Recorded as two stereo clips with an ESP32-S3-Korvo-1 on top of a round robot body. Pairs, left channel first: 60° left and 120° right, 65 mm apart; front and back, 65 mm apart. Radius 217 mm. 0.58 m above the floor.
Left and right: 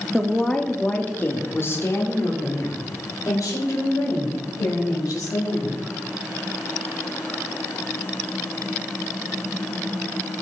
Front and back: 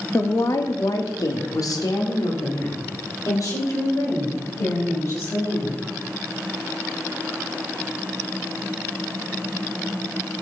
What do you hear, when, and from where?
0.1 s a woman speaking: 30° right, 1.9 m; by 5.8 s 35° left, 6.5 m